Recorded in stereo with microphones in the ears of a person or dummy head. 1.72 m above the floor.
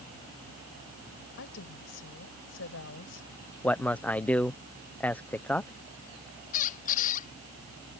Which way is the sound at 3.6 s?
Centre (ahead or behind).